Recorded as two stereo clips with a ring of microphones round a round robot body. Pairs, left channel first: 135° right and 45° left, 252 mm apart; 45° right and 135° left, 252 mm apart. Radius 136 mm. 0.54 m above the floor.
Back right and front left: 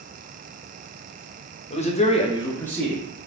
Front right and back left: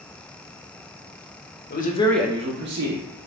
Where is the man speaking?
80° right, 0.9 m; by 3.0 s 135° left, 1.1 m.